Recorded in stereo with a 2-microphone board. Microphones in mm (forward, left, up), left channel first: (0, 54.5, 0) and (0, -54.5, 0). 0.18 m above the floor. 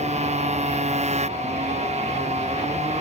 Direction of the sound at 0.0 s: 85° right.